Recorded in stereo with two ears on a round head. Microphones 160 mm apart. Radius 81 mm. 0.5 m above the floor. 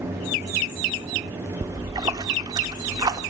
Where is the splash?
20° right (ahead or behind), 0.6 m.